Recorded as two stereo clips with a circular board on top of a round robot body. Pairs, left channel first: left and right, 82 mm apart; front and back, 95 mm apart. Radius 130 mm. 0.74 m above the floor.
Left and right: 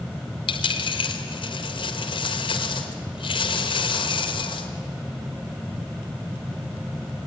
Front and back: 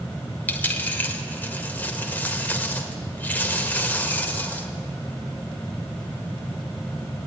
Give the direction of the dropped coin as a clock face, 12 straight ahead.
10 o'clock.